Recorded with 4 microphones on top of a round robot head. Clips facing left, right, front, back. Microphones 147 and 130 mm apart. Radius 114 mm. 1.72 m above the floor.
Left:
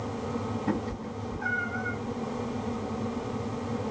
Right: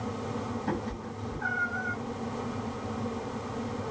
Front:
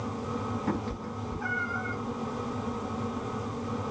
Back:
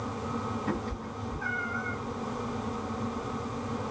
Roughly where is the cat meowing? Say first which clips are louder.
Left 2 dB, front 1 dB; ahead.